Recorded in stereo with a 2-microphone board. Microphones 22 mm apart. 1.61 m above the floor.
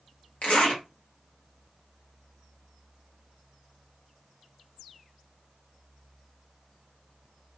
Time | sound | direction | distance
0.4 | a zipper | 70° left (ahead or behind) | 1.1 m